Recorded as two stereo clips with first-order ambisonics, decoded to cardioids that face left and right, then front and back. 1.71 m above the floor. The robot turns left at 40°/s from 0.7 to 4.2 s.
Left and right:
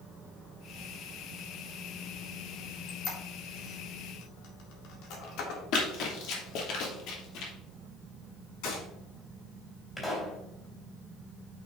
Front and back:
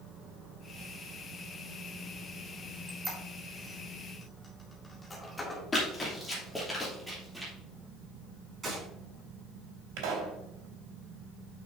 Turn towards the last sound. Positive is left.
turn(degrees=170)